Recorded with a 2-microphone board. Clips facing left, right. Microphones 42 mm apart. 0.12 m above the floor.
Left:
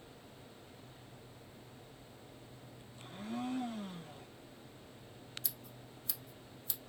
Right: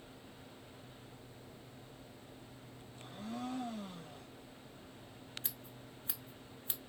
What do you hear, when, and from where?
3.0 s a blender: 35° left (ahead or behind), 1.7 m
5.4 s scissors: 30° right (ahead or behind), 0.6 m